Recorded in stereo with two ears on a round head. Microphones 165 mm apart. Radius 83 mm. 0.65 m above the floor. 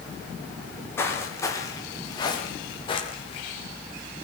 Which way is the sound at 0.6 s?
10° left (ahead or behind).